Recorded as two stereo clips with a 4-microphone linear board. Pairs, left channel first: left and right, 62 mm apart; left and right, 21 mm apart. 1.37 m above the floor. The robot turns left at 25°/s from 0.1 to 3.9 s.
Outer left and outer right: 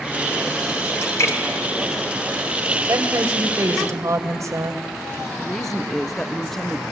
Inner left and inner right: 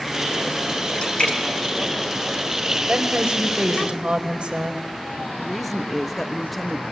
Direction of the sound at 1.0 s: 45° left (ahead or behind).